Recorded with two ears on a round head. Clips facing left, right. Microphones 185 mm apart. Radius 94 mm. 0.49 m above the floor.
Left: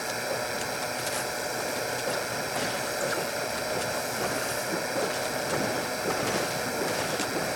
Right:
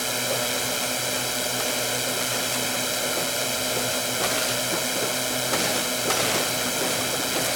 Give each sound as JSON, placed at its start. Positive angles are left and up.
{"t": 0.0, "sound": "a drone", "side_deg": -45}